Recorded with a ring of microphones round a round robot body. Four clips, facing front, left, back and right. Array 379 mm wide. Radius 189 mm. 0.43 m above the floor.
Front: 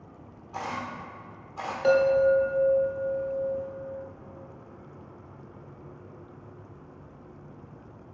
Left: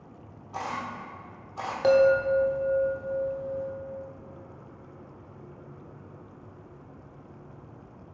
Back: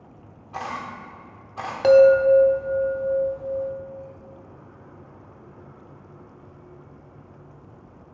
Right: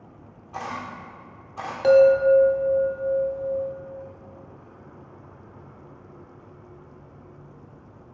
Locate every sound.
0.5 s a camera shutter: 155° right, 1.4 m
1.8 s a chime: 175° left, 1.0 m